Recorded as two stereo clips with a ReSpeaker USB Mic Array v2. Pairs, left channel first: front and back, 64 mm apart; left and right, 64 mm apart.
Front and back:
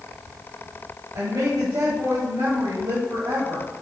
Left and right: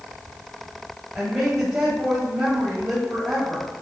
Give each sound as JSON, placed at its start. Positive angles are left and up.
{"t": 1.1, "sound": "a woman speaking", "azimuth_deg": -175, "distance_m": 2.5}